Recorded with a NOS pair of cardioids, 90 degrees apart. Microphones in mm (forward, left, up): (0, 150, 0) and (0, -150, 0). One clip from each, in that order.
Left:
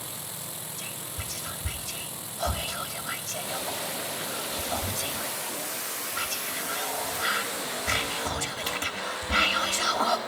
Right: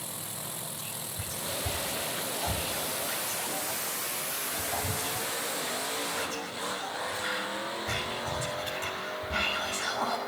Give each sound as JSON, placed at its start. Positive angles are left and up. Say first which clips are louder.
{"t": 0.8, "sound": "whispering", "louder": "left 2 dB", "azimuth_deg": 65, "distance_m": 1.9}